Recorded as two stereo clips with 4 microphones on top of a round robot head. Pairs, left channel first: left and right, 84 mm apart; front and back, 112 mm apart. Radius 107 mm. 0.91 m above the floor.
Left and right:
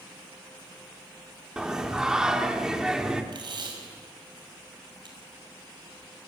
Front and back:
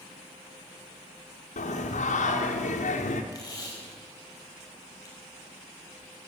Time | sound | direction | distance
1.6 | singing | 5° right | 1.9 m
3.3 | tape being pulled | 60° right | 5.5 m